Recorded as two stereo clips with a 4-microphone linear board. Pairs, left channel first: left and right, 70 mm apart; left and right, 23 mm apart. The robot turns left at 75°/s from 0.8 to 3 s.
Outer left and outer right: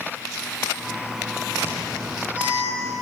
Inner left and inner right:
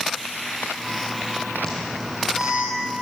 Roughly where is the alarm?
Left.